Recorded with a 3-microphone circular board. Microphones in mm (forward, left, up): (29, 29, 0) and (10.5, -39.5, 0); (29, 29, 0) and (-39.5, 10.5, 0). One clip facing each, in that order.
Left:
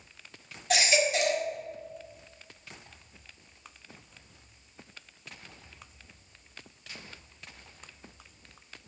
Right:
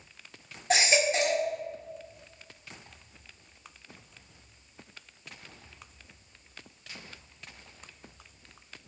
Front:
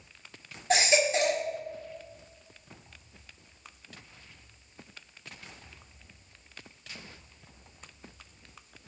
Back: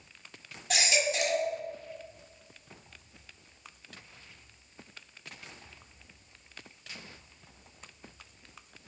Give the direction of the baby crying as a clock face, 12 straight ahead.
1 o'clock.